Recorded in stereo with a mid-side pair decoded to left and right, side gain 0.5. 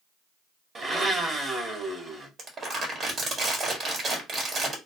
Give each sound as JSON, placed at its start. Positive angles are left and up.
{"t": 0.8, "sound": "a blender", "azimuth_deg": -35, "distance_m": 1.3}
{"t": 2.4, "sound": "crumpling", "azimuth_deg": -45, "distance_m": 1.5}